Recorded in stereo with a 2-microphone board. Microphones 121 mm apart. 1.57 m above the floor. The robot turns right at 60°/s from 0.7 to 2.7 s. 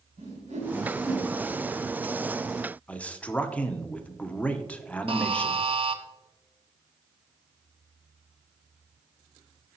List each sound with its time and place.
0.2 s a whoosh: 80° right, 4 m; by 1.3 s 50° right (ahead or behind), 4 m
2.9 s a man speaking: 10° left (ahead or behind), 0.7 m
5.1 s a buzzer: 50° right (ahead or behind), 0.7 m